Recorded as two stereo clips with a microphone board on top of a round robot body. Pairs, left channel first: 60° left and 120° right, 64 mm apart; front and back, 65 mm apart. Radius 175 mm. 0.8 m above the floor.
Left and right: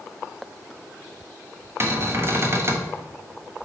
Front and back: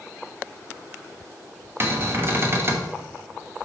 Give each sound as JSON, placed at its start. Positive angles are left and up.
{"t": 1.8, "sound": "a cupboard door", "azimuth_deg": -150, "distance_m": 1.2}